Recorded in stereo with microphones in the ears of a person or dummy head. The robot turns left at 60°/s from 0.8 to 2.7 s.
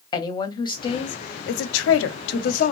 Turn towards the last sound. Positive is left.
turn(degrees=40)